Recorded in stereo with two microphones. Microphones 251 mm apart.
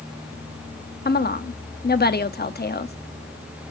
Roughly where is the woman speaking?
Left.